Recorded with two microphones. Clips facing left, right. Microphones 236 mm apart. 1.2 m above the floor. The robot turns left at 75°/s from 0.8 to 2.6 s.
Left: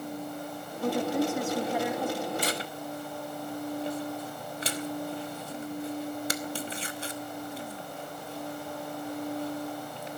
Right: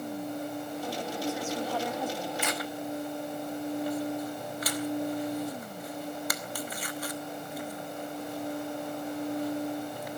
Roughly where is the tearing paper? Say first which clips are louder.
Even; left.